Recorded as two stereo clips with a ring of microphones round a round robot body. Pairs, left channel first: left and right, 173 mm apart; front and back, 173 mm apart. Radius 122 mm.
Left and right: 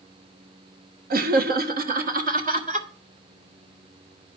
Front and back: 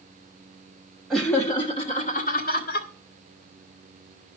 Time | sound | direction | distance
1.1 | laughter | 90° right | 1.0 m